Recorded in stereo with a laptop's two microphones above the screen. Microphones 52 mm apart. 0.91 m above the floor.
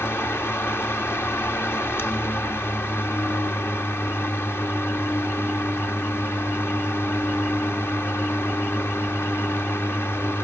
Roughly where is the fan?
Left.